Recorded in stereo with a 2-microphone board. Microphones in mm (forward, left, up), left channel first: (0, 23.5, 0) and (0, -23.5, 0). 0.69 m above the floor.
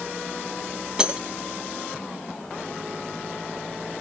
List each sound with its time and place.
1.0 s breaking glass: 20° right (ahead or behind), 3 m